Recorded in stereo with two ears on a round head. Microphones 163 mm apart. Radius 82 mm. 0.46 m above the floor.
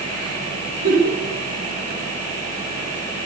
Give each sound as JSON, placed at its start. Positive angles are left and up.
{"t": 0.8, "sound": "a giggle", "side_deg": -50, "distance_m": 9.0}